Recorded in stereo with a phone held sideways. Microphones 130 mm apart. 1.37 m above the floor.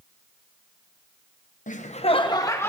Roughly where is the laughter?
Left.